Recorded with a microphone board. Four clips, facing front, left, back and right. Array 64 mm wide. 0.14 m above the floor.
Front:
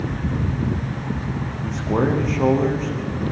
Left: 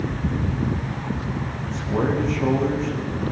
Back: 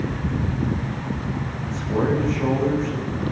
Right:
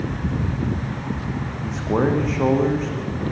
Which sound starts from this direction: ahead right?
A man speaking, at 1.6 s.